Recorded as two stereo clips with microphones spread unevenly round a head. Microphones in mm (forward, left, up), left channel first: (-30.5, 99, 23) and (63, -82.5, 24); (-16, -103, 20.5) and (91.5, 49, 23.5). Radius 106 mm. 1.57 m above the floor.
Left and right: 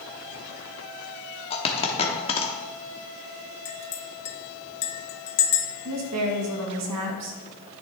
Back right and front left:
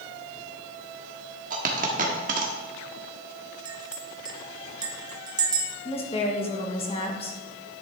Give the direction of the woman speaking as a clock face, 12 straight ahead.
2 o'clock.